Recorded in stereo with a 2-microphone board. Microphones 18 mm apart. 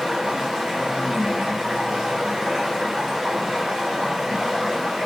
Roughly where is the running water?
Right.